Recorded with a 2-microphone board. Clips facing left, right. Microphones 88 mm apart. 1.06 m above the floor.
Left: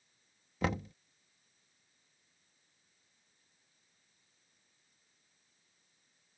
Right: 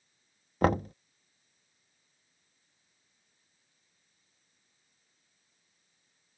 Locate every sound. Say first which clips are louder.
0.6 s knocking: right 9 dB; 50° right (ahead or behind)